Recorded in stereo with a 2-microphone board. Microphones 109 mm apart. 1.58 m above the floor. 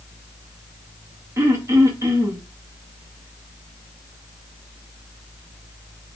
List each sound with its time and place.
1.4 s throat clearing: 25° right (ahead or behind), 0.5 m